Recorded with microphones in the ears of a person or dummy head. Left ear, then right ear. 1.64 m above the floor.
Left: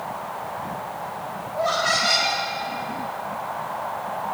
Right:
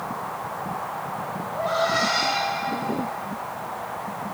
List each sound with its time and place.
1.5 s laughter: 35° left (ahead or behind), 5 m